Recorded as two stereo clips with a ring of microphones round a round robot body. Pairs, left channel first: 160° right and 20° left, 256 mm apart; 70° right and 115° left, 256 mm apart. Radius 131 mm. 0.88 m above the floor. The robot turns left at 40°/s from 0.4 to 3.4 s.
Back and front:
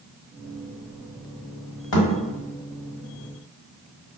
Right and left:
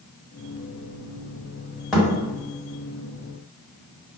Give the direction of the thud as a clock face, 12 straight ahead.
5 o'clock.